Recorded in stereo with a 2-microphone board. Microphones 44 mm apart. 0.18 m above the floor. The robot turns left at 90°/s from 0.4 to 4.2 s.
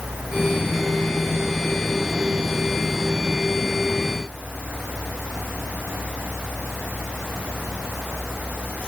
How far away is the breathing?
I don't hear breathing.